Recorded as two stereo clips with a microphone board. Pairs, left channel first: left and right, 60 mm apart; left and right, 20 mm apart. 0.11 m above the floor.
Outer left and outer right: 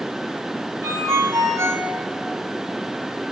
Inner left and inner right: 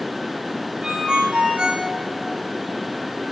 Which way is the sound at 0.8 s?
45° right (ahead or behind).